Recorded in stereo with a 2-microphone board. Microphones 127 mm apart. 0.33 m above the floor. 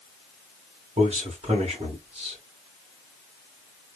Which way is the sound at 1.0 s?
50° right (ahead or behind).